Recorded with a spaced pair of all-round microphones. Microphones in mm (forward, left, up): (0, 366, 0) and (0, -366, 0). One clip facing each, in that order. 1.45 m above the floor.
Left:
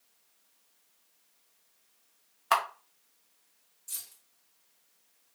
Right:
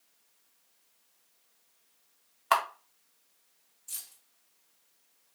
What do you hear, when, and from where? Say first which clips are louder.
2.5 s a camera shutter: right 1 dB; 5° right (ahead or behind), 0.9 m
3.9 s keys jangling: left 3 dB; 55° left (ahead or behind), 2.5 m